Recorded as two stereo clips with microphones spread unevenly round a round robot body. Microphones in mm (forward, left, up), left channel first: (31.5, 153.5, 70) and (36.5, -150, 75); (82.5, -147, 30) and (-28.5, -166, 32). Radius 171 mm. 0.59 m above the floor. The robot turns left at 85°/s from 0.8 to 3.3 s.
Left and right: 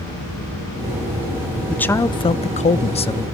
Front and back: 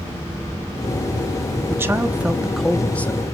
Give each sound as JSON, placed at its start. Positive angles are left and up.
{"t": 1.7, "sound": "a man speaking", "azimuth_deg": 175, "distance_m": 0.6}